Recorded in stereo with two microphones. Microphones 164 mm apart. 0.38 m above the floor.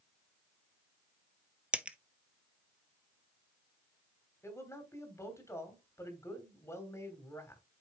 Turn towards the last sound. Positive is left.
turn(degrees=15)  # may be behind; listen again after turning